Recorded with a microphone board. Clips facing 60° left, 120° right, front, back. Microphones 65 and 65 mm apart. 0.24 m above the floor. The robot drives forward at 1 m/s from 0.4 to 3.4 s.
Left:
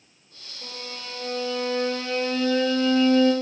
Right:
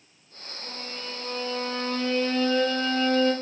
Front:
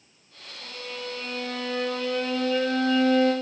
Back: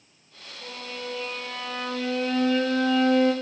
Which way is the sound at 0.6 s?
100° left.